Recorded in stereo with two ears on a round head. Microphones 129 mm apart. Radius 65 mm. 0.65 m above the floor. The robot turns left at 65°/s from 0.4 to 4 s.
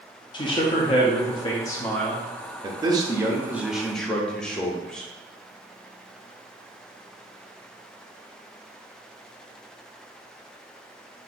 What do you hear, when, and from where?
0.3 s a man speaking: 120° left, 0.7 m; by 2.2 s straight ahead, 0.7 m
2.6 s a man speaking: 30° right (ahead or behind), 0.7 m; by 5.1 s 5° left (ahead or behind), 0.7 m